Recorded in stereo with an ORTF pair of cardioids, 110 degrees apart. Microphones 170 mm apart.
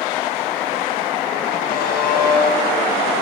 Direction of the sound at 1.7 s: 60° left.